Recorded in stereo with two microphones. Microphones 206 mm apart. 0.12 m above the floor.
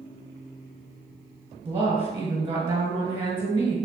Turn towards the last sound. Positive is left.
turn(degrees=-25)  # may be behind; listen again after turning